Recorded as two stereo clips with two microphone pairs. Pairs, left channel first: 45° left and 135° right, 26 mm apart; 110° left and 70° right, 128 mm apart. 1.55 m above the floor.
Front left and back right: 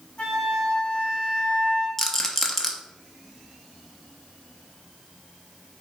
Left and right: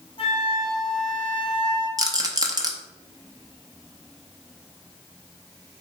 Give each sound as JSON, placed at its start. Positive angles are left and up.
{"t": 0.2, "sound": "a flute", "azimuth_deg": 80, "distance_m": 0.9}
{"t": 2.0, "sound": "a rattle", "azimuth_deg": -20, "distance_m": 0.6}